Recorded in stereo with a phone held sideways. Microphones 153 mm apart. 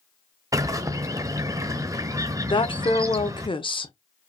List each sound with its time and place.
0.5 s a bird: 20° right (ahead or behind), 0.6 m
2.5 s a woman speaking: 35° left (ahead or behind), 0.8 m